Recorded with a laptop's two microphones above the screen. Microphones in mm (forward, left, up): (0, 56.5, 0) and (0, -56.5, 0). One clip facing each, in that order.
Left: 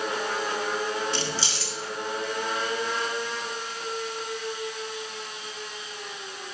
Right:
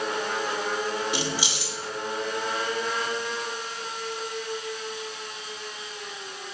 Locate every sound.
1.1 s keys jangling: 15° right (ahead or behind), 1.2 m